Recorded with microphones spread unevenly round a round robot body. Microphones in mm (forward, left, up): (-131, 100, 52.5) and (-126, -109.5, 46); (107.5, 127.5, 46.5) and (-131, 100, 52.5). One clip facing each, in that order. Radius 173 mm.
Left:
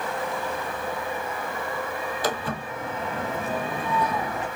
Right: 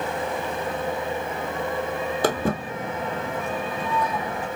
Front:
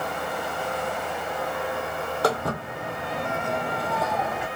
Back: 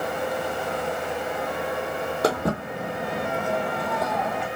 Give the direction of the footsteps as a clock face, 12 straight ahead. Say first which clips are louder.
Right 7 dB, back 2 dB; 3 o'clock.